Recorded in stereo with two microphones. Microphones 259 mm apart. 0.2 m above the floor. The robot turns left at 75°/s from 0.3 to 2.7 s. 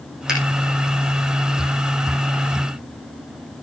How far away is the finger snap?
About 8 m.